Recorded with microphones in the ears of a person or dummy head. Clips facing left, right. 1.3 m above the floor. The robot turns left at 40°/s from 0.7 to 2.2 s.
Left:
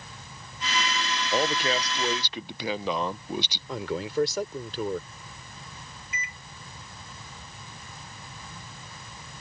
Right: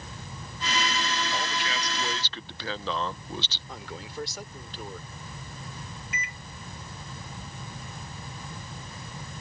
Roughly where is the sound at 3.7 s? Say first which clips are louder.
Left 13 dB; left.